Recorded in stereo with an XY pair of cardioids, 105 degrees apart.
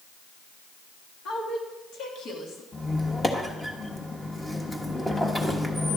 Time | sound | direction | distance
1.2 | a woman speaking | 70° left | 3 m
2.7 | a squeak | 15° left | 1.3 m